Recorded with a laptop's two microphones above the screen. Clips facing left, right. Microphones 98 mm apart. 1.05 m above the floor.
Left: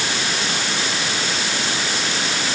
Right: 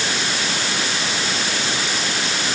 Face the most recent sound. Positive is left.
No sound to turn to.